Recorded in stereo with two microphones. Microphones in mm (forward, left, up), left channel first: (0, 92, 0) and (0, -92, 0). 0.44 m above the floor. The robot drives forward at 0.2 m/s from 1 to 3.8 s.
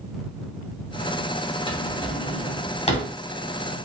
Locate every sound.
1.7 s a drawer: 25° left (ahead or behind), 0.9 m; by 3.1 s 35° left (ahead or behind), 0.7 m